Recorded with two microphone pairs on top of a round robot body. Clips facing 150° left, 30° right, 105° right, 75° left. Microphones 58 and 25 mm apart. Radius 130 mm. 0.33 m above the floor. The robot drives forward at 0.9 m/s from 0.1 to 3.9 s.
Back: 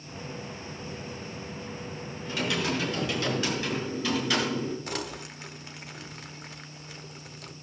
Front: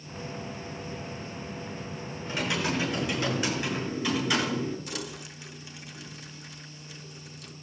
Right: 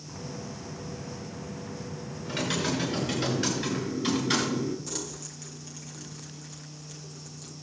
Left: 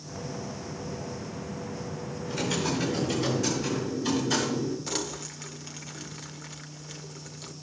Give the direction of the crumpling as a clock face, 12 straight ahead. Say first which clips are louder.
Back 3 dB, left 4 dB; 8 o'clock.